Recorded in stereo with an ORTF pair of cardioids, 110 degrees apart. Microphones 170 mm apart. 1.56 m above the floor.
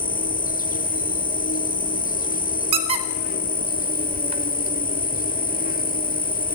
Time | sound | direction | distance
0.0 | an insect | 55° left | 0.8 m
2.7 | a squeak | 35° right | 4 m